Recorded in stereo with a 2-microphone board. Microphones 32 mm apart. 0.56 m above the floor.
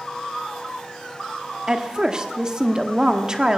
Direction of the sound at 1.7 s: 25° right (ahead or behind).